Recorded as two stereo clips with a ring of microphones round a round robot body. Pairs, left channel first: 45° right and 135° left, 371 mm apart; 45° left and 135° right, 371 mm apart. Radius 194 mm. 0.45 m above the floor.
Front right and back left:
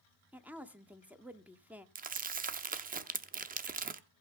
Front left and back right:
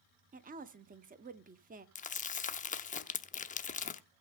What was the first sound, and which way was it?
A woman speaking, 145° right.